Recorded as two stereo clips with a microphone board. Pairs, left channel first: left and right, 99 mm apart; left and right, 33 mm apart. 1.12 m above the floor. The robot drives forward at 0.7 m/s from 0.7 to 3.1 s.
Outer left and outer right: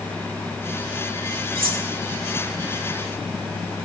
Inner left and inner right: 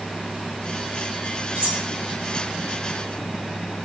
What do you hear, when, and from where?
1.6 s cutlery clinking: 60° right (ahead or behind), 1.6 m; by 1.9 s 70° right (ahead or behind), 1.5 m